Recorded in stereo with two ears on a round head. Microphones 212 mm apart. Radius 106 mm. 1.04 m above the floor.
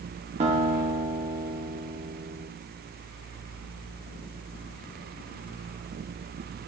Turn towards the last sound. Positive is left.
turn(degrees=-30)  # may be behind; listen again after turning